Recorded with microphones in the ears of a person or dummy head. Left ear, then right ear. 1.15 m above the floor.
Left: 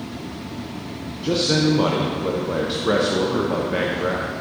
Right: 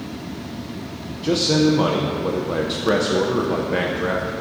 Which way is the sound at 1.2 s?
5° right (ahead or behind).